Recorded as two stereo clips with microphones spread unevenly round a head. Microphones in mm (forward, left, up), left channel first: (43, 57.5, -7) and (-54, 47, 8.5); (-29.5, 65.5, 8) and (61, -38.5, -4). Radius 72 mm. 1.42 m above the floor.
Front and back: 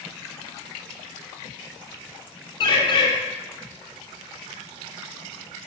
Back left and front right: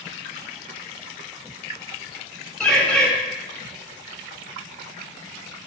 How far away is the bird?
About 2.5 m.